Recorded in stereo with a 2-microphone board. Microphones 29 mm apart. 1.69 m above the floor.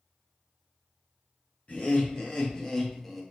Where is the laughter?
50° left (ahead or behind), 1.1 m; by 3.2 s centre (ahead or behind), 0.8 m.